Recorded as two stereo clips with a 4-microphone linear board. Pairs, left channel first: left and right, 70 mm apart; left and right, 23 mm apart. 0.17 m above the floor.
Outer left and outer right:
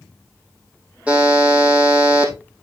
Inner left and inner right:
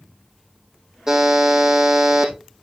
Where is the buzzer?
20° right (ahead or behind), 4 m.